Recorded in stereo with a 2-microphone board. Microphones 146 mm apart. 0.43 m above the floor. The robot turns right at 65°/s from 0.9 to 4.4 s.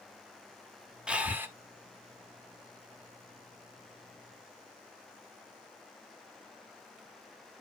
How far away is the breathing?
About 1.1 m.